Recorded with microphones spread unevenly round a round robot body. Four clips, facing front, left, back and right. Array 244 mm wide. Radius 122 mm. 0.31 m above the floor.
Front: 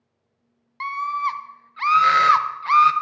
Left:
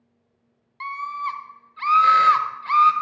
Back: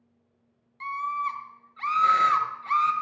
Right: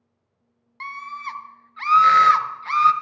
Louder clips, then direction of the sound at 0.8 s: Left 5 dB, front 5 dB; 15° left.